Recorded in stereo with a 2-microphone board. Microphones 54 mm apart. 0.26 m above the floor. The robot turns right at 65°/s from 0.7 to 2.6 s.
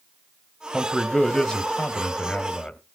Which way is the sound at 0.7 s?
5° right (ahead or behind).